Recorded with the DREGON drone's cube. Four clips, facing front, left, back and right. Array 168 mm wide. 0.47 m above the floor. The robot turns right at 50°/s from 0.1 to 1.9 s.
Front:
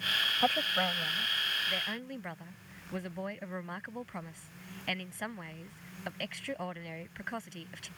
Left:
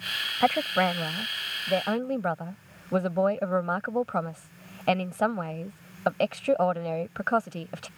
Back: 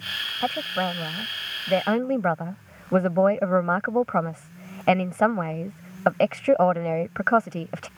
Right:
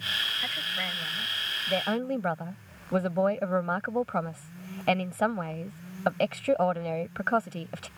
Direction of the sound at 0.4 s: 100° left.